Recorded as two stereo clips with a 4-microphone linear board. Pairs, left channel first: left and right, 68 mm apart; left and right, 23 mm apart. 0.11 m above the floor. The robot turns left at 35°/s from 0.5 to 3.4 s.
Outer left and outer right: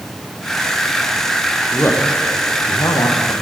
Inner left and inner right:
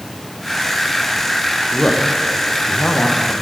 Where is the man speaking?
30° left (ahead or behind), 4.5 m; by 3.3 s 70° left (ahead or behind), 4.5 m.